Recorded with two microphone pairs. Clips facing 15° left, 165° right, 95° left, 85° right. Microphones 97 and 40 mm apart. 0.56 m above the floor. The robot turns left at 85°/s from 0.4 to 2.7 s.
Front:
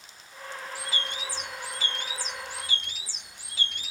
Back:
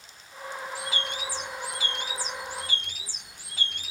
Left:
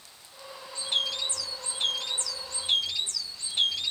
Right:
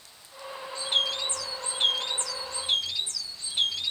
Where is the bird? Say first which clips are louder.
Back 1 dB, right 2 dB; straight ahead, 1.1 m; by 3.9 s 165° right, 1.1 m.